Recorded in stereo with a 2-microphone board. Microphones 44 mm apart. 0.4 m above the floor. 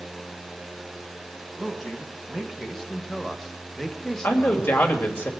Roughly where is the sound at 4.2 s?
Left.